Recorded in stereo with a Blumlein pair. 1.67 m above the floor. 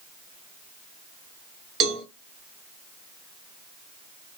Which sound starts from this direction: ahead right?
A cowbell, at 1.8 s.